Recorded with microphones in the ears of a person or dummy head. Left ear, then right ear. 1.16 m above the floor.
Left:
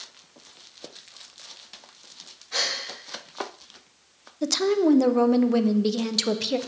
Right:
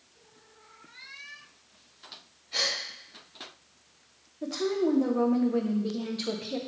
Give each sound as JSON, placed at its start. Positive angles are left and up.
{"t": 2.5, "sound": "a gasp", "side_deg": 50, "distance_m": 2.0}
{"t": 4.4, "sound": "a woman speaking", "side_deg": 80, "distance_m": 0.6}